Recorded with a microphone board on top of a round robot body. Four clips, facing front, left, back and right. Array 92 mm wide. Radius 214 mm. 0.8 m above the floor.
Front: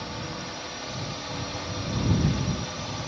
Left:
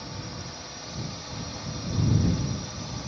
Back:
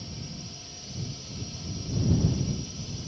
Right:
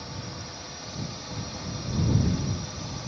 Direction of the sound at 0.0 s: Straight ahead.